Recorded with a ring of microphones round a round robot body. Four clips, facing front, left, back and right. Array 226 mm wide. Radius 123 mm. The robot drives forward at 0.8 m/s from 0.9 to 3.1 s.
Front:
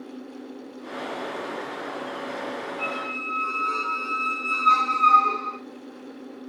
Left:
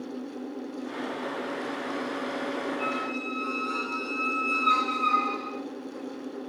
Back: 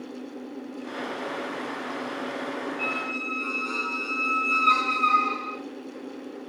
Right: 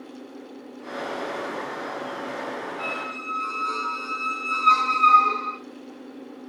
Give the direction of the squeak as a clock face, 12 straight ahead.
4 o'clock.